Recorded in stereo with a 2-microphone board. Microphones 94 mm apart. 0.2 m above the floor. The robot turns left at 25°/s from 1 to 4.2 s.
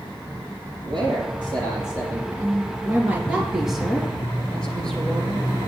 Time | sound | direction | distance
0.8 | a man speaking | 60° right (ahead or behind) | 6 m
2.3 | a woman speaking | 140° right | 3 m